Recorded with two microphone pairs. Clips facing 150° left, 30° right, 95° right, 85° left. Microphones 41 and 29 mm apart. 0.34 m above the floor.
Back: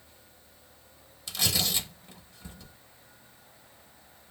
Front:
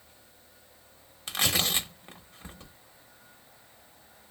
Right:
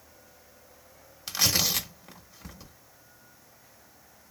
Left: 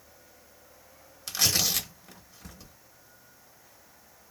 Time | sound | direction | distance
1.3 | tearing paper | 25° right | 0.9 m